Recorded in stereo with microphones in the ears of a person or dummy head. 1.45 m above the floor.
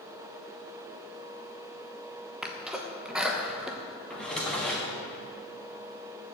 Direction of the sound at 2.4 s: Centre (ahead or behind).